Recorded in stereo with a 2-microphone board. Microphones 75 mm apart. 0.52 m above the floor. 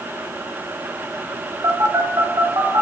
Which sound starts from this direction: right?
A phone buzzing, at 1.6 s.